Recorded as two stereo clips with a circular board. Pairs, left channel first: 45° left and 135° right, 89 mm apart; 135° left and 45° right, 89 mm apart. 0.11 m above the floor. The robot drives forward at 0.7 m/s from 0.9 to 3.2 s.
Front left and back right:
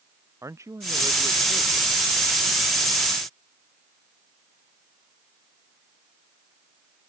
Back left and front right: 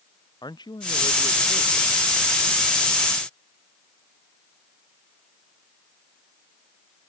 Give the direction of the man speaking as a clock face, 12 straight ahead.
6 o'clock.